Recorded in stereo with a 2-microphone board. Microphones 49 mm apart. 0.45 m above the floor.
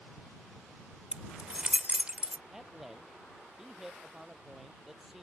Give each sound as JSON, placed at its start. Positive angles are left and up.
{"t": 1.1, "sound": "keys jangling", "side_deg": -25}
{"t": 2.5, "sound": "a man speaking", "side_deg": -5}